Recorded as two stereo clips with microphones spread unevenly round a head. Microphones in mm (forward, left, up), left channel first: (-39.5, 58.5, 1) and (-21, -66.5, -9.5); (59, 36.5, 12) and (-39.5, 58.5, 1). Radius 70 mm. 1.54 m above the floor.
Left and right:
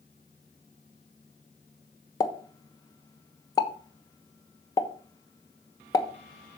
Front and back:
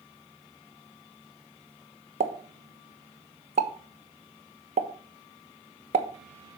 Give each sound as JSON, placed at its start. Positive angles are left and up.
{"t": 2.2, "sound": "a pop", "azimuth_deg": 155, "distance_m": 1.1}